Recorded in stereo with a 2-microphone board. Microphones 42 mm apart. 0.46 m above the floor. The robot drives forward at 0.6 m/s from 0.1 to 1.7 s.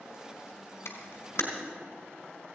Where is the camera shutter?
70° left (ahead or behind), 2 m; by 1.4 s 75° left (ahead or behind), 2.0 m.